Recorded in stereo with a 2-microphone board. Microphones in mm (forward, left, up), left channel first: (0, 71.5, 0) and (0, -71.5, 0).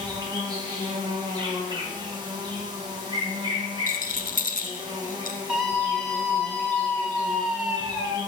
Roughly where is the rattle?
Left.